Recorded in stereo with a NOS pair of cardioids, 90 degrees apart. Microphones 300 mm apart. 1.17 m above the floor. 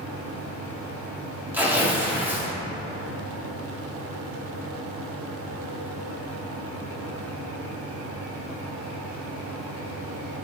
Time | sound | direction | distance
0.0 | a fan | 50° right | 1.3 m
1.5 | tearing paper | 5° right | 1.9 m